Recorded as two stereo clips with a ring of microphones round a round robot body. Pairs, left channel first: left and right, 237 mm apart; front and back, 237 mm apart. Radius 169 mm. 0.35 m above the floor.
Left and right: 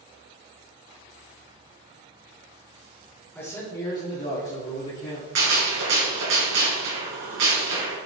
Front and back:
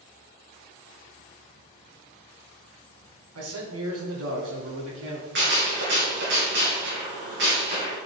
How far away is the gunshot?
About 3 m.